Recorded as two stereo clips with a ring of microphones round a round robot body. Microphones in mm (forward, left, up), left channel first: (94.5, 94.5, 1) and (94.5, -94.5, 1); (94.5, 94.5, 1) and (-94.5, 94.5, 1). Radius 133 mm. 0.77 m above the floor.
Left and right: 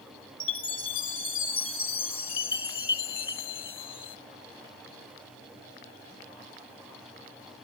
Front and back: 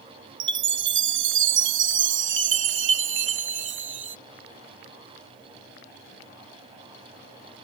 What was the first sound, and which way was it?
A chime, 165° left.